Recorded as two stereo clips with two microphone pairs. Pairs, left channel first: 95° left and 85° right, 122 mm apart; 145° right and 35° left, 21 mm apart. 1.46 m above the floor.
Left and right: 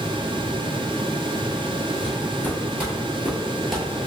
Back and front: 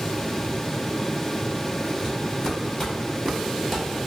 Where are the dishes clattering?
I don't hear dishes clattering.